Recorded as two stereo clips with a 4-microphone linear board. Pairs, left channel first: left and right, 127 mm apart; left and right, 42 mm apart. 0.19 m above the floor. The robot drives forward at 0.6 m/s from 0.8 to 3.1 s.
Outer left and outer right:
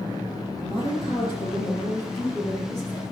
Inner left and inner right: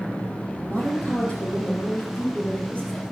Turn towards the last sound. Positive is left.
turn(degrees=30)  # may be behind; listen again after turning